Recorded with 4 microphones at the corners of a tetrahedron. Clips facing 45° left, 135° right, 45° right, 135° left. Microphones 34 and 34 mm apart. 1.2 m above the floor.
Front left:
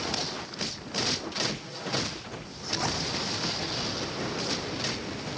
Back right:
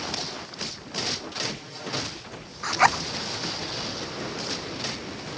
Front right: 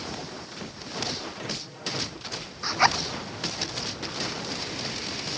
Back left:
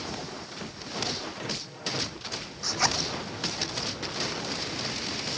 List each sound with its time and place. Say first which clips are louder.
2.6 s a zipper: back right 10 dB, front right 6 dB; 105° right